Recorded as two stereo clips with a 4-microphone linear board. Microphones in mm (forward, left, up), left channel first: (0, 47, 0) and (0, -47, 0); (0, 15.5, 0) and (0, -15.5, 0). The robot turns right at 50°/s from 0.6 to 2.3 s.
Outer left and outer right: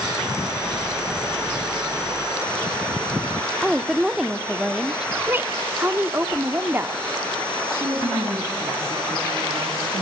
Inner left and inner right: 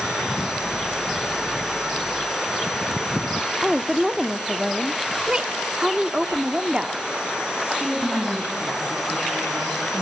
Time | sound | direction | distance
3.6 | a woman speaking | 5° right (ahead or behind) | 0.7 m
5.2 | a woman speaking | 25° right (ahead or behind) | 0.7 m
7.6 | a woman speaking | 50° right (ahead or behind) | 4.5 m